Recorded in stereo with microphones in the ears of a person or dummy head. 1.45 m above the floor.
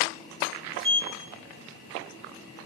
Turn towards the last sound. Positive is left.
turn(degrees=-25)  # may be behind; listen again after turning